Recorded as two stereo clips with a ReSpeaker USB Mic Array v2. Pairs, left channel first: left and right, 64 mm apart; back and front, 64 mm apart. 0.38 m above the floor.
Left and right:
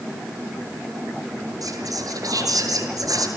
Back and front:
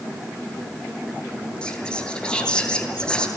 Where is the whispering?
105° right, 8.5 m.